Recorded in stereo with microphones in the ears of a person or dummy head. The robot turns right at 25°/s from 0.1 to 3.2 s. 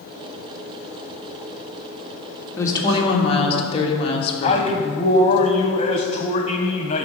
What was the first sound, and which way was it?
A woman speaking, 15° left (ahead or behind).